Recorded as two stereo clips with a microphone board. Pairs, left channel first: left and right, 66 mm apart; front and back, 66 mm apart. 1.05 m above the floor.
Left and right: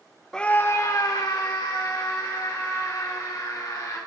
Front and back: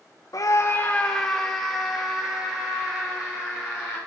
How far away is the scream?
About 0.5 m.